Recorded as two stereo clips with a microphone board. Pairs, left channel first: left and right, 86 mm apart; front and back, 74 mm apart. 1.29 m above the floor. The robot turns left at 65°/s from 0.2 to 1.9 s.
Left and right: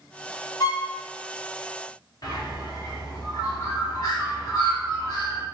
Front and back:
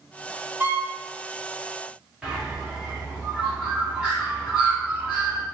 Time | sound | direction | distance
0.6 | a violin | 130° left | 1.1 m
2.2 | a bird | 105° left | 0.9 m